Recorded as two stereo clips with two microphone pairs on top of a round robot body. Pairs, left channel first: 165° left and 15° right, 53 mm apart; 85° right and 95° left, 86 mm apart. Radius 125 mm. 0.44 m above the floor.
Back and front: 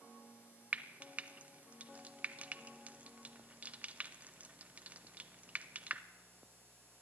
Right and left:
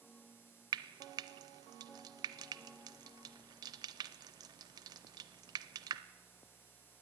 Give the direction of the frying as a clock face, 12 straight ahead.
10 o'clock.